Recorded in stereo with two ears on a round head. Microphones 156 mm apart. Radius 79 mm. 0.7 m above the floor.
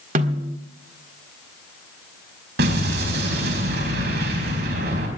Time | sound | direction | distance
0.1 | a snare drum | 50° right (ahead or behind) | 1.5 m
2.6 | an explosion | 70° right (ahead or behind) | 4.5 m